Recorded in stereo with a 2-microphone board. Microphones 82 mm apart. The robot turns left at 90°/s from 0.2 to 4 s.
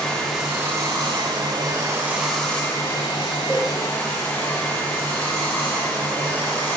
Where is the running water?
5° left, 2 m; by 6.8 s 25° left, 2 m.